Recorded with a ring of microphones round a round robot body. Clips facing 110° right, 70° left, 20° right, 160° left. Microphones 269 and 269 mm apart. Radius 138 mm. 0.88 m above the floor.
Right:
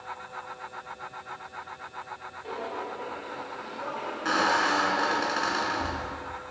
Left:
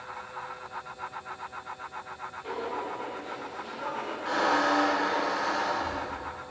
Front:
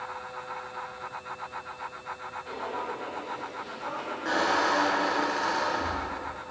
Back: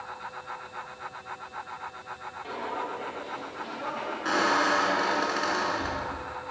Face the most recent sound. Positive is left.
turn(degrees=-135)